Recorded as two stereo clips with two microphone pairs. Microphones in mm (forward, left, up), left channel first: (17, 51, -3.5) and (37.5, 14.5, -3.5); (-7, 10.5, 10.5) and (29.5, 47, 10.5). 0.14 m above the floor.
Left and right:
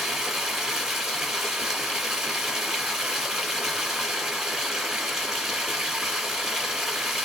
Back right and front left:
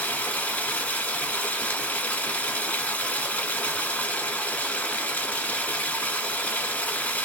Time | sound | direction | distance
0.0 | running water | 130° right | 1.5 m